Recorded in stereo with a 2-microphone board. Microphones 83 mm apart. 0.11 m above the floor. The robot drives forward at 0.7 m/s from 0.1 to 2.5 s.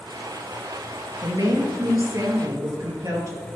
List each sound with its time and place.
1.2 s a woman speaking: 50° right (ahead or behind), 2.5 m; by 3.5 s 45° right (ahead or behind), 2.5 m